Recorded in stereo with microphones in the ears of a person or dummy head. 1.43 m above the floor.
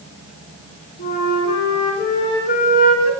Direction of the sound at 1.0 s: 50° left (ahead or behind).